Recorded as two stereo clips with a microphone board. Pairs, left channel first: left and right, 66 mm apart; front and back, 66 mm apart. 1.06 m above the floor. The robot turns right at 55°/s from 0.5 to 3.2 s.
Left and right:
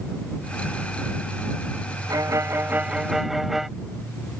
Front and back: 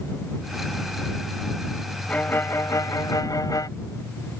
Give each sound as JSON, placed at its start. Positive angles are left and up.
{"t": 2.1, "sound": "a violin", "azimuth_deg": -65}